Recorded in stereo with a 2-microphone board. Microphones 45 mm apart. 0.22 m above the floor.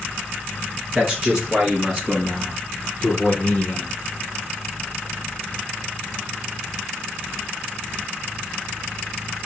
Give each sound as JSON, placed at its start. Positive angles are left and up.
{"t": 0.9, "sound": "a man speaking", "side_deg": -15, "distance_m": 2.0}